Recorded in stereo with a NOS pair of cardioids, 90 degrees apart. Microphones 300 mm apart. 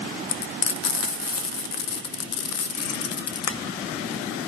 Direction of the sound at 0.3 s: 55° left.